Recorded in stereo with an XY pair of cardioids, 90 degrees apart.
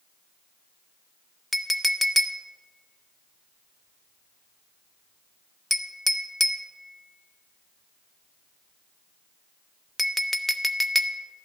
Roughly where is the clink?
Ahead.